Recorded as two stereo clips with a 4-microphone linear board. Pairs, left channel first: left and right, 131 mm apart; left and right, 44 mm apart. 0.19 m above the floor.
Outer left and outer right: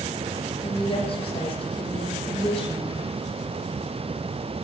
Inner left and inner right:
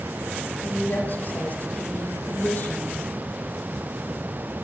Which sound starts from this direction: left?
A woman speaking, at 0.6 s.